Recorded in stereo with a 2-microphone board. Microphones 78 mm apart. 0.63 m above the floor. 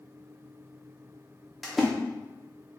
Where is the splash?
Centre (ahead or behind), 0.8 m.